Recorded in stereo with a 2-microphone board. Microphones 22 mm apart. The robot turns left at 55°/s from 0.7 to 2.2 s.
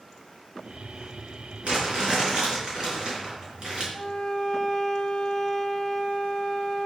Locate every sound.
1.6 s crumpling: 115° right, 4.5 m; by 3.8 s 145° right, 4.5 m
3.9 s a violin: 40° left (ahead or behind), 1.1 m